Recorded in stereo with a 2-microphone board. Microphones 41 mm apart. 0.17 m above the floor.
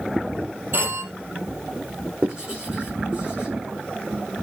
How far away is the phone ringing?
About 3.5 m.